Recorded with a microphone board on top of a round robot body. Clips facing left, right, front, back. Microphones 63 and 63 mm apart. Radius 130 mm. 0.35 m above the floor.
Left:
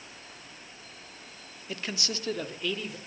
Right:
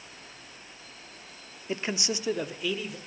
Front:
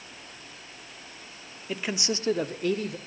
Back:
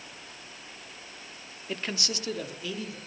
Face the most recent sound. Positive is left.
turn(degrees=0)